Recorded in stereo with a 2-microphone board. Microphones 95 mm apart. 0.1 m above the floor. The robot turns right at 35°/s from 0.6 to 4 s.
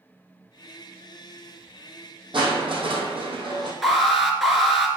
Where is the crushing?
110° right, 2.5 m; by 3.7 s 60° right, 2.5 m.